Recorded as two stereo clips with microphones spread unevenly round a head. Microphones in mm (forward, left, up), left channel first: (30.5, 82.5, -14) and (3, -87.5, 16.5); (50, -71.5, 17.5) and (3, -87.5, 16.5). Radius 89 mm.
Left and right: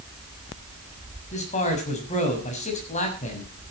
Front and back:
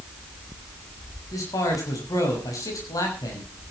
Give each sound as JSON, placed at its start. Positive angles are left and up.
{"t": 1.3, "sound": "a man speaking", "azimuth_deg": 30, "distance_m": 6.5}